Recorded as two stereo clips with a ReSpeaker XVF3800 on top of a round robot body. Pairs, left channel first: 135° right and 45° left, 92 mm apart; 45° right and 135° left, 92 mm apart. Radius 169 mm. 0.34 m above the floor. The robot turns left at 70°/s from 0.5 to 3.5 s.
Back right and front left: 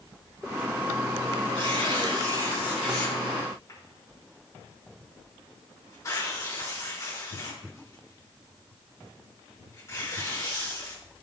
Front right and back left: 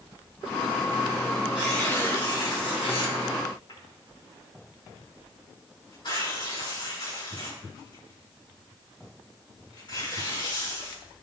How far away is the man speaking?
No man speaking in this recording.